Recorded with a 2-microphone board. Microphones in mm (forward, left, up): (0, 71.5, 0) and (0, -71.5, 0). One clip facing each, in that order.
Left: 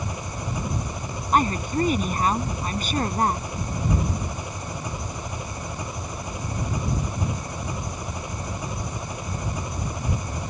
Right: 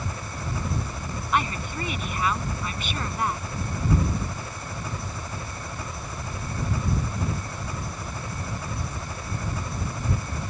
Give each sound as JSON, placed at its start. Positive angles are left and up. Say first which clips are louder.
{"t": 0.0, "sound": "an engine running", "louder": "left 2 dB", "side_deg": 15}
{"t": 1.3, "sound": "a woman speaking", "louder": "left 6 dB", "side_deg": 40}